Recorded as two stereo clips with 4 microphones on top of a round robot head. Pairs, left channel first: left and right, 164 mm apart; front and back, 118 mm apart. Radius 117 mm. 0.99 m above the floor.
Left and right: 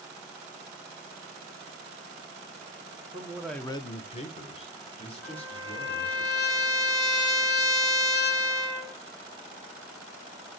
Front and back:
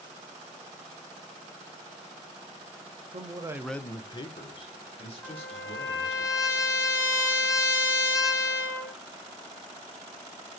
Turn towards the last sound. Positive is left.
turn(degrees=65)